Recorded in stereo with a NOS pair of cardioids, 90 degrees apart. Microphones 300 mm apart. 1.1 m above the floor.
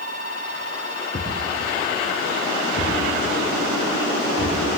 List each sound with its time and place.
1.1 s a thud: 20° left, 4 m